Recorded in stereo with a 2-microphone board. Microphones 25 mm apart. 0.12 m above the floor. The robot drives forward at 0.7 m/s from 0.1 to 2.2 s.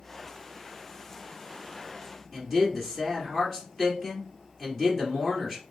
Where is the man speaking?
5° left (ahead or behind), 2.0 m.